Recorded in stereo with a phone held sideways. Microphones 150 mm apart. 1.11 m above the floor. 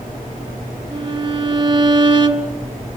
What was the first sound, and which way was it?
A violin, 30° right (ahead or behind).